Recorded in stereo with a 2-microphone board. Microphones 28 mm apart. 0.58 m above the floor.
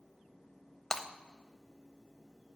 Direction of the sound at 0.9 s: 25° left (ahead or behind).